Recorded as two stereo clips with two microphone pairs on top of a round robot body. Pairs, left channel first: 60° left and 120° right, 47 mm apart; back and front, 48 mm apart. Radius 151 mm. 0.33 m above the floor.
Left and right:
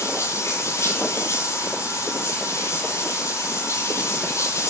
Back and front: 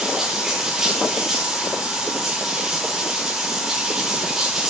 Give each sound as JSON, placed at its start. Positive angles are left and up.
{"t": 0.0, "sound": "running water", "azimuth_deg": 80, "distance_m": 9.0}